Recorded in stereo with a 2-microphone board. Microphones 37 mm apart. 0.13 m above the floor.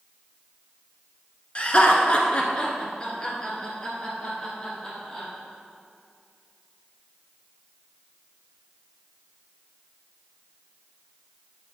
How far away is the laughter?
About 1.4 m.